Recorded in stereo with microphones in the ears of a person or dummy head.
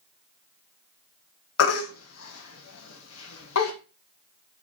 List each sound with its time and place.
1.6 s a baby crying: 75° left (ahead or behind), 1.6 m